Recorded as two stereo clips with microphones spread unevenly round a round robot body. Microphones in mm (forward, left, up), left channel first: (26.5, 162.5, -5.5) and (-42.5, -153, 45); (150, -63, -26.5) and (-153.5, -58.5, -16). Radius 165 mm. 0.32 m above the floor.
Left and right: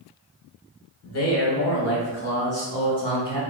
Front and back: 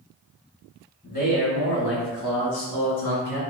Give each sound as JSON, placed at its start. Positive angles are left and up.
{"t": 1.0, "sound": "a man speaking", "azimuth_deg": 65, "distance_m": 1.6}